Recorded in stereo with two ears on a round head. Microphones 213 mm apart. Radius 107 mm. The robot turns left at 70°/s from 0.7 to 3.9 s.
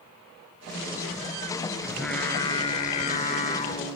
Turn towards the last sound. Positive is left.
turn(degrees=20)  # may be behind; listen again after turning